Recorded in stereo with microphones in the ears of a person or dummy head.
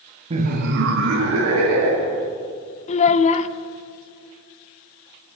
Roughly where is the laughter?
Right.